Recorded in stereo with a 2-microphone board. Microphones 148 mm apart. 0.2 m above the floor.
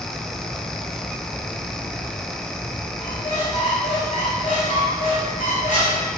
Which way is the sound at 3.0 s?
65° left (ahead or behind).